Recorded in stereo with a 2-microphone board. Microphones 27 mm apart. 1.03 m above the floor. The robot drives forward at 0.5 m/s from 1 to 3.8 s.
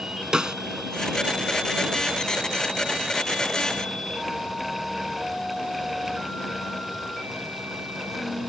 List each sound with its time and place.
0.3 s a snare drum: 30° right (ahead or behind)